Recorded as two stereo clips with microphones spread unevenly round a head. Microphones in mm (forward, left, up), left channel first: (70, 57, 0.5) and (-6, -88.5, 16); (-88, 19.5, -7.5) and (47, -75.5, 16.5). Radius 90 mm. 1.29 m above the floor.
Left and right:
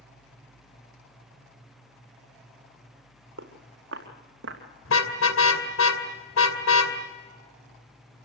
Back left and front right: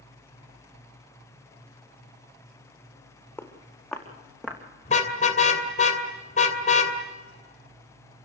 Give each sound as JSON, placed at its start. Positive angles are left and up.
{"t": 3.4, "sound": "footsteps", "azimuth_deg": -130, "distance_m": 4.0}
{"t": 4.8, "sound": "a car horn", "azimuth_deg": 85, "distance_m": 2.5}